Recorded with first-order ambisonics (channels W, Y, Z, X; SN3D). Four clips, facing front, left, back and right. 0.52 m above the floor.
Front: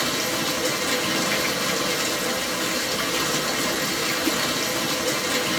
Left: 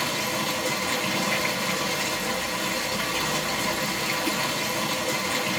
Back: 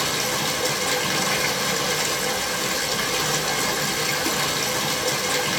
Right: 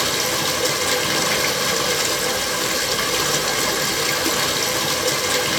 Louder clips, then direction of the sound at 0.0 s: Right 6 dB, back 1 dB; 100° right.